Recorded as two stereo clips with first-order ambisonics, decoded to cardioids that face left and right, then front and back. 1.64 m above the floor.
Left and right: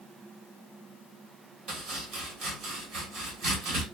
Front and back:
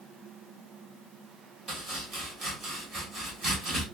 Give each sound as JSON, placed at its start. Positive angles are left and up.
{"t": 1.7, "sound": "chopping", "azimuth_deg": -130, "distance_m": 1.2}